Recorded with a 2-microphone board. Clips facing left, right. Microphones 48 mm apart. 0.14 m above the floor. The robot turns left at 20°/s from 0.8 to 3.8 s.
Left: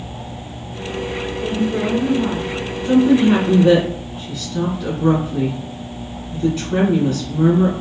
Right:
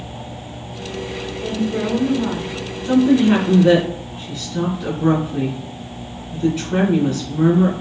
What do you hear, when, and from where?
1.4 s a woman speaking: 25° left (ahead or behind), 1.2 m; by 2.5 s 10° left (ahead or behind), 1.2 m
2.9 s a woman speaking: centre (ahead or behind), 1.7 m; by 7.7 s 5° right (ahead or behind), 1.7 m